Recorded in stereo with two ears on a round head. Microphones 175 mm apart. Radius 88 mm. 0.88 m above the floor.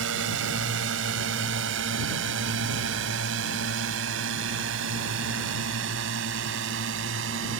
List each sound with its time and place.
0.0 s a drone: 65° right (ahead or behind)